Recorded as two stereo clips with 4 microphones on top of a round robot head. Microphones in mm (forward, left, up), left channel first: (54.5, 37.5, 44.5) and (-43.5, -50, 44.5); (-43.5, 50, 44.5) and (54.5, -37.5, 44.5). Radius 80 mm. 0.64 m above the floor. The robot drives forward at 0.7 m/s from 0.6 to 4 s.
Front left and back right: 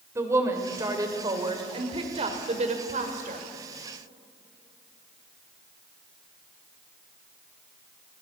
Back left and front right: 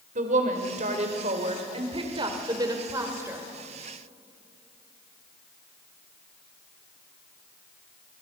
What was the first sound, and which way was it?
A woman speaking, 70° right.